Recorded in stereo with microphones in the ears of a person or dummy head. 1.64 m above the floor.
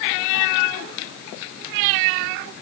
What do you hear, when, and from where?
Only background noise.